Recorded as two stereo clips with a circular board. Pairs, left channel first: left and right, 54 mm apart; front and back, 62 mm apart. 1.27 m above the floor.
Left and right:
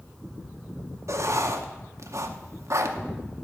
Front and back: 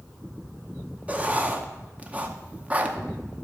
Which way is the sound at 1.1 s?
115° right.